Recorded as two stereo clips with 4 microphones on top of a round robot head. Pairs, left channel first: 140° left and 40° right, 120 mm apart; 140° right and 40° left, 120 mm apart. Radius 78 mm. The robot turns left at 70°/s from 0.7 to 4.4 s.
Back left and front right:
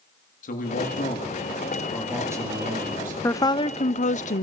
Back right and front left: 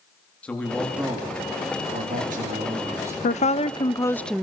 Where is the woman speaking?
150° right, 0.6 m; by 4.4 s 130° left, 0.6 m.